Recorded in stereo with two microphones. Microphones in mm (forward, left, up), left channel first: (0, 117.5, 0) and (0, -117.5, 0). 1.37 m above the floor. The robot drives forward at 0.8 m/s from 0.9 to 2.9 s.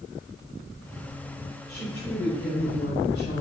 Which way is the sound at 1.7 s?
55° left (ahead or behind).